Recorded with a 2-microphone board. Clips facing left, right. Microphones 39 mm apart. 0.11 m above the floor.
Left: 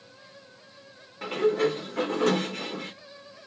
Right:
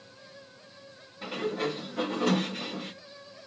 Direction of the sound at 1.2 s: 70° left (ahead or behind).